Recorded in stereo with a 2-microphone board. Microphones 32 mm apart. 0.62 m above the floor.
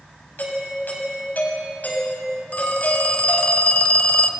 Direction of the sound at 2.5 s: 50° left (ahead or behind).